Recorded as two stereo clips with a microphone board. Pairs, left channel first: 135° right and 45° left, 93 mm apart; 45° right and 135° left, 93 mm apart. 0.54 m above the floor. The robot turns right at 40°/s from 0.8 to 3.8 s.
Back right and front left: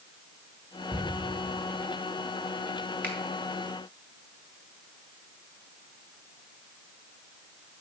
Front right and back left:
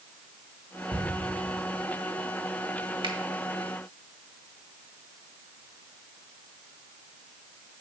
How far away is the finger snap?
About 1.7 m.